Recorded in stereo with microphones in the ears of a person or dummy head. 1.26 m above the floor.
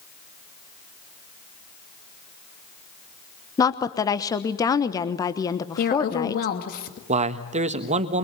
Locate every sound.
3.6 s a woman speaking: 20° left (ahead or behind), 1.1 m
5.8 s a woman speaking: 50° left (ahead or behind), 2.0 m
7.1 s a man speaking: 35° right (ahead or behind), 1.4 m